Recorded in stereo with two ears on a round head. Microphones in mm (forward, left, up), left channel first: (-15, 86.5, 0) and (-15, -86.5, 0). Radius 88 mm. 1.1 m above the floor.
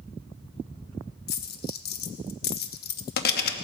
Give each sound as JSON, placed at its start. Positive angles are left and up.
{"t": 1.3, "sound": "a dropped coin", "side_deg": 50, "distance_m": 0.8}